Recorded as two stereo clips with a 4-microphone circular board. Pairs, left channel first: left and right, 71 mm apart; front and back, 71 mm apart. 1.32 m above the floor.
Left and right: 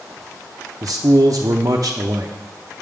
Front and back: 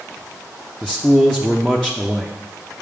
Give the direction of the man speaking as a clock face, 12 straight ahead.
3 o'clock.